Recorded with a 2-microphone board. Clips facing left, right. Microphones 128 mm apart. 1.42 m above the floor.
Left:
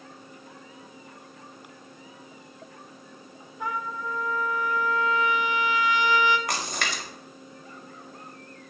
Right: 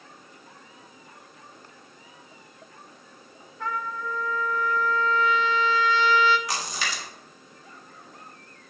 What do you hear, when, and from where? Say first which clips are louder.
3.6 s a trumpet: even; 15° left (ahead or behind), 0.7 m
6.5 s a splash: left 1 dB; 55° left (ahead or behind), 1.6 m